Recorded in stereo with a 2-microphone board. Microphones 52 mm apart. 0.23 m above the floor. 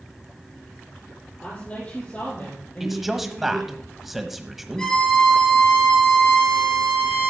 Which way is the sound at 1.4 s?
30° left (ahead or behind).